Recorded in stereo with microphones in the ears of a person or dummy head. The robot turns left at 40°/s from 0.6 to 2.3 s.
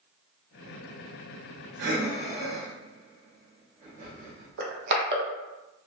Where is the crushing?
55° right (ahead or behind), 0.6 m.